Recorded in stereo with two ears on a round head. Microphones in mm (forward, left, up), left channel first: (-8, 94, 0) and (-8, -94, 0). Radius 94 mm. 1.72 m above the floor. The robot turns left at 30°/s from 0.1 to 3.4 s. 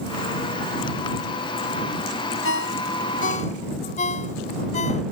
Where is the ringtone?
60° left (ahead or behind); by 5.0 s 35° left (ahead or behind).